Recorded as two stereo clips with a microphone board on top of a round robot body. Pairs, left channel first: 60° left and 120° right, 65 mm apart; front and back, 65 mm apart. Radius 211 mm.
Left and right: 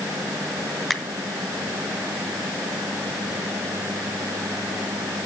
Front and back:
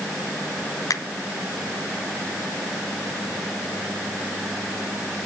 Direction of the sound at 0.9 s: 30° right.